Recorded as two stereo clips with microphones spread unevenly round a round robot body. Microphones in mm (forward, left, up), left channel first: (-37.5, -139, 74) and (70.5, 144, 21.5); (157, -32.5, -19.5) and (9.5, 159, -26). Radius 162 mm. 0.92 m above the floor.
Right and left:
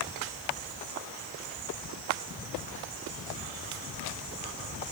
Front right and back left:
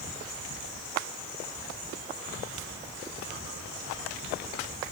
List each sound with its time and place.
Only background noise.